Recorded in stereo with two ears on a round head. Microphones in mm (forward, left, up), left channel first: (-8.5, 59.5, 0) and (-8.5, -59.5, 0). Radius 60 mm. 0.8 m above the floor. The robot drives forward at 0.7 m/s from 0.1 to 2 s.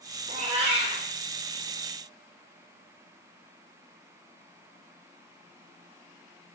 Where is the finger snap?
I don't hear a finger snap.